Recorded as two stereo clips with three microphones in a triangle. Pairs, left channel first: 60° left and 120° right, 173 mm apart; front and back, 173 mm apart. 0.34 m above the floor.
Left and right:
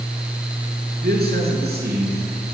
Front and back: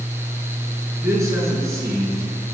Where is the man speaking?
110° right, 5.5 m.